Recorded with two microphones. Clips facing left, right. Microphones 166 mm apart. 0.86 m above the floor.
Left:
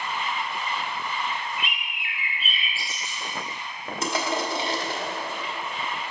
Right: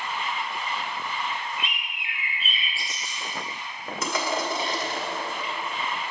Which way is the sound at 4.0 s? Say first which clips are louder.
Left 1 dB; 30° left (ahead or behind).